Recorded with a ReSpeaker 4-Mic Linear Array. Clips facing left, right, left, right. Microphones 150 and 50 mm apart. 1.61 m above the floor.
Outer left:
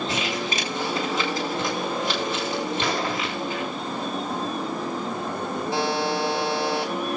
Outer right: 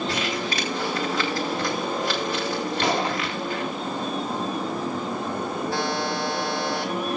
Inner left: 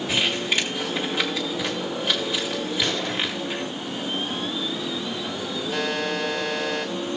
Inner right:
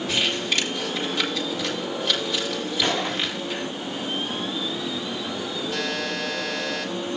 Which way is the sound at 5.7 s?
20° left (ahead or behind).